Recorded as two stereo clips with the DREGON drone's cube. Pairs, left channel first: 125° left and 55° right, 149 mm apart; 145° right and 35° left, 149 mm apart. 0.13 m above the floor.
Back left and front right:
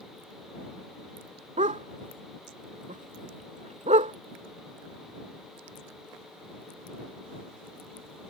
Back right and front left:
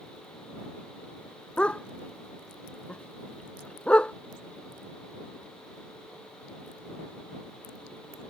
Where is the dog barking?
65° right.